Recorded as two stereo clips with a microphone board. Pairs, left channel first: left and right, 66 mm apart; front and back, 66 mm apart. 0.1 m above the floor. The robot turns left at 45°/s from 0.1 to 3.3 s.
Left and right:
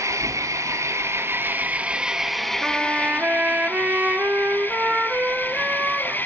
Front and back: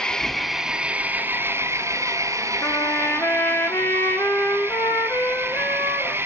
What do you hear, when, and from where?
0.0 s an engine running: 80° right, 1.9 m; by 6.3 s 140° left, 1.9 m
2.6 s a trumpet: 5° right, 1.5 m; by 6.2 s 35° right, 1.5 m